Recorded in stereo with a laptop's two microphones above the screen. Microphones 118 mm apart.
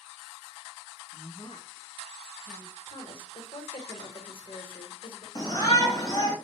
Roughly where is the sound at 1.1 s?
Left.